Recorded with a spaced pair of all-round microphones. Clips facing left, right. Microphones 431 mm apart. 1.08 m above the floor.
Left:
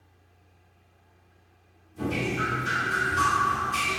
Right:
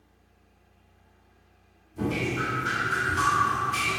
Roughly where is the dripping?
Right.